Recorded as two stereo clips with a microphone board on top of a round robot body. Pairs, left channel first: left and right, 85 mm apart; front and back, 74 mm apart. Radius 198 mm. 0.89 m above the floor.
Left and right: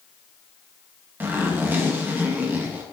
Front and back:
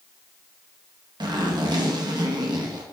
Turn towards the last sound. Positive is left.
turn(degrees=-155)